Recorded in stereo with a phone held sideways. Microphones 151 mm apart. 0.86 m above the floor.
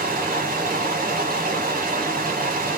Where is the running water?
65° right (ahead or behind), 1.3 m.